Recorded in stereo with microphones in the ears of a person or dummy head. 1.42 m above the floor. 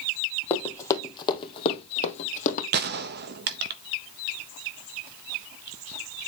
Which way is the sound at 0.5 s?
10° left (ahead or behind).